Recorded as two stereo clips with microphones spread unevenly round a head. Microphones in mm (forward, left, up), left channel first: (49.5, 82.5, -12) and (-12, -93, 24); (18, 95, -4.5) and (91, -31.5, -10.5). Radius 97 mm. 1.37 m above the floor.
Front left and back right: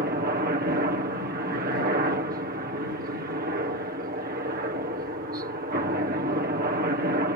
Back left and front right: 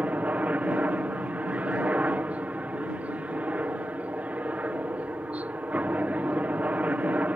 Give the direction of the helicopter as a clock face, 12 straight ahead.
5 o'clock.